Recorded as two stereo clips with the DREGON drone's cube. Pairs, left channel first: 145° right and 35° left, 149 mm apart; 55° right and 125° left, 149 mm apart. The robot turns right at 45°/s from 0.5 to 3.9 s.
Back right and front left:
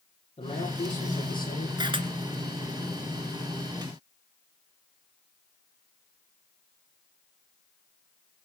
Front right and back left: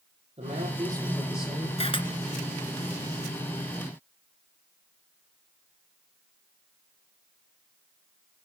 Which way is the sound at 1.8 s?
20° right.